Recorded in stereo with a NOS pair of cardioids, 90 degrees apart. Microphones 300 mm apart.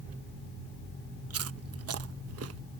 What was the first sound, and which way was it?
Chewing, 50° right.